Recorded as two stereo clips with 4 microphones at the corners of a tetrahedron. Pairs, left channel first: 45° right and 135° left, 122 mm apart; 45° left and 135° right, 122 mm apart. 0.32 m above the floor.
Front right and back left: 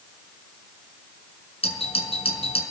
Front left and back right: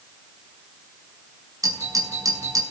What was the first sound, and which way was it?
A doorbell, 75° right.